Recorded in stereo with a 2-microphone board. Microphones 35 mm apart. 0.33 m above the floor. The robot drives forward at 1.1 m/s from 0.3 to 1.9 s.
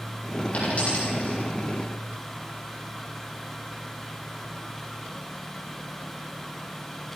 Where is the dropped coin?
40° left (ahead or behind), 5 m; by 1.4 s 35° left (ahead or behind), 5.5 m.